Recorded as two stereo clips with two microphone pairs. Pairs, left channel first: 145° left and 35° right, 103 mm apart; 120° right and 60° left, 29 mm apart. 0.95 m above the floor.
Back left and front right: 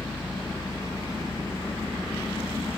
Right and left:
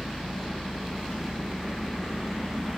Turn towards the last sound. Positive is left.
turn(degrees=-150)